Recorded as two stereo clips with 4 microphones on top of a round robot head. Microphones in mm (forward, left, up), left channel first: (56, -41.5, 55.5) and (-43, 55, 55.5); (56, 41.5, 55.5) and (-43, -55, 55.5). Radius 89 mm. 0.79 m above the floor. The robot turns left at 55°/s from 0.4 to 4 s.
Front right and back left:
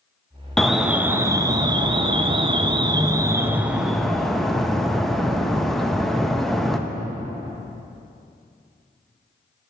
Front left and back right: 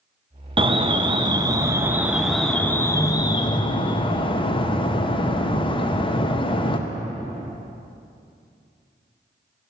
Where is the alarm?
130° right, 0.7 m; by 6.8 s 40° left, 0.7 m.